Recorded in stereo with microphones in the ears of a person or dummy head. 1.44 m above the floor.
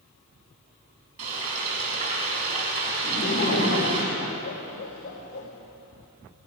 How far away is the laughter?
About 3.5 m.